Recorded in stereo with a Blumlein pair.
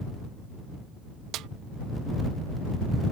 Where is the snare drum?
35° right.